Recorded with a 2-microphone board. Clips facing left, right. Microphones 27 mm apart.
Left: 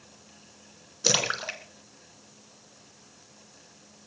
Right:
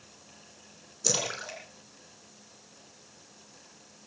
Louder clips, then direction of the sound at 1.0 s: Left 6 dB; 45° left (ahead or behind).